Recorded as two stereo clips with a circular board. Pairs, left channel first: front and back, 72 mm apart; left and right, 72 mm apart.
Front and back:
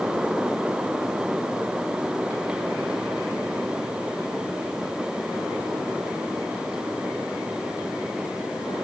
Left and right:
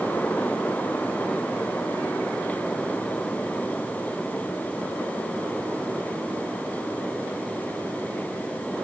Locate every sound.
Only background noise.